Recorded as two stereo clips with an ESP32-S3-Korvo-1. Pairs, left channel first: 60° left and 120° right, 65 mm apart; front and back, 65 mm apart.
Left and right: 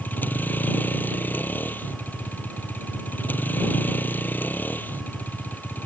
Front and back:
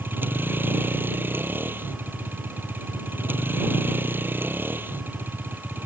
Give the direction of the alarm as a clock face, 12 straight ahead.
I don't hear an alarm.